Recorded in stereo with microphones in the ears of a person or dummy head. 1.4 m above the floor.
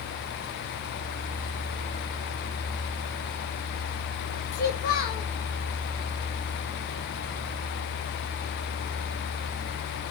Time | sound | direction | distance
4.5 | a child speaking | 60° left (ahead or behind) | 0.7 m